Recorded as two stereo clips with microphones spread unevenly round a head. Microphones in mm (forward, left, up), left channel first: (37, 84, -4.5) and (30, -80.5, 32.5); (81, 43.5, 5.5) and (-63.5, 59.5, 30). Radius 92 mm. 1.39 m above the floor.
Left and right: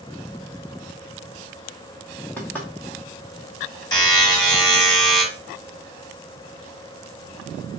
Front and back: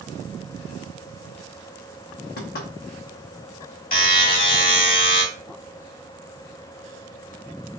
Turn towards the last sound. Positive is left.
turn(degrees=20)